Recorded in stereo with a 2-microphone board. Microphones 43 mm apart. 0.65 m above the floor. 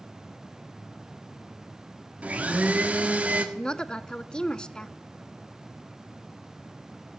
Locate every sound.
2.2 s a blender: 35° right (ahead or behind), 1.5 m
3.5 s a woman speaking: 20° left (ahead or behind), 0.5 m